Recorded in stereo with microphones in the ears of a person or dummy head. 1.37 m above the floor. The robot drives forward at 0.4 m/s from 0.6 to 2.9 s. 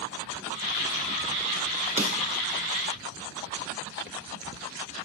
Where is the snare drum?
10° right (ahead or behind), 1.3 m.